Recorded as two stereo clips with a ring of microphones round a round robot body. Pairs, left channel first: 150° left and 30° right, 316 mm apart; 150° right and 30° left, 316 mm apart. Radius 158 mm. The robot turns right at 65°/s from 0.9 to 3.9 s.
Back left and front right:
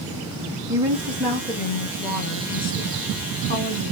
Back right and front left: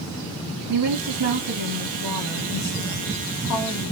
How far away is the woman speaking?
About 2.5 m.